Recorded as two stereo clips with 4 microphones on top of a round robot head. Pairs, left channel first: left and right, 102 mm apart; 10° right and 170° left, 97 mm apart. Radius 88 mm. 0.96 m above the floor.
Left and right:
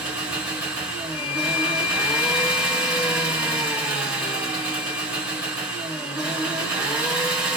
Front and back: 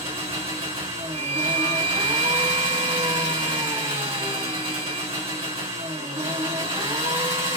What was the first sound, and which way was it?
An engine running, 170° right.